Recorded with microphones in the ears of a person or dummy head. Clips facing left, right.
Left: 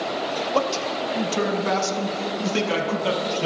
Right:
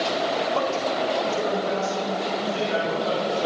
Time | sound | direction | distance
0.5 | a man speaking | 55° left (ahead or behind) | 0.9 m